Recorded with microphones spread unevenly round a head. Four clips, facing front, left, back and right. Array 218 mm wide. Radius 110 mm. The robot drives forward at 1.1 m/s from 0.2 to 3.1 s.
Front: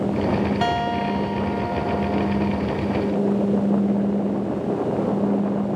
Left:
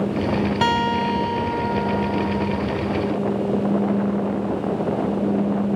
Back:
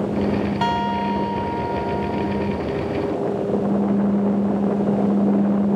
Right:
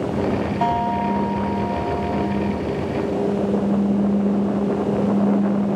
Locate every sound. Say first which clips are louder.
0.6 s a guitar: right 1 dB, back 1 dB; 75° left; by 2.6 s 105° left